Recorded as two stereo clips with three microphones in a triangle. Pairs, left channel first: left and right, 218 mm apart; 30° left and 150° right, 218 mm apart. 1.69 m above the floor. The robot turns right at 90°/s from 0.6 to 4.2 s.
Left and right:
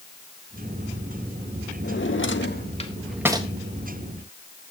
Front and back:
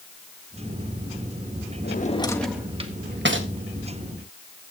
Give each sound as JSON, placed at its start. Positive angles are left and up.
{"t": 1.8, "sound": "a drawer", "azimuth_deg": 65, "distance_m": 1.6}